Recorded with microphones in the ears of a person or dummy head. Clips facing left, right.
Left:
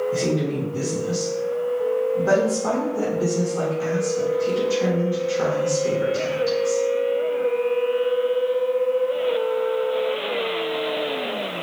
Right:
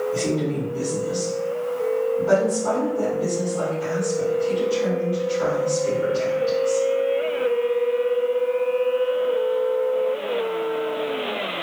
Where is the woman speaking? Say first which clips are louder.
Left 1 dB; 75° left (ahead or behind), 1.5 m.